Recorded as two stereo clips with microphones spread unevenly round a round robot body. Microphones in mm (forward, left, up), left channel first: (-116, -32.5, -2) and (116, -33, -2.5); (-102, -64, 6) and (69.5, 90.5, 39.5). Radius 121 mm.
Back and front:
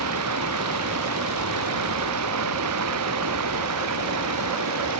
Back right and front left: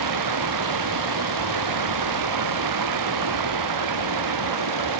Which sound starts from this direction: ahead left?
Running water, at 0.0 s.